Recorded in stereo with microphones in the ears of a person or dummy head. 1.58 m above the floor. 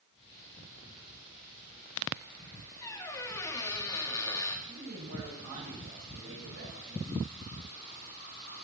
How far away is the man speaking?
About 9 m.